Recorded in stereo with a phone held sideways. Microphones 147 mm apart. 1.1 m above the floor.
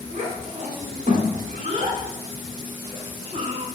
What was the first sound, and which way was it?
A child speaking, 55° right (ahead or behind).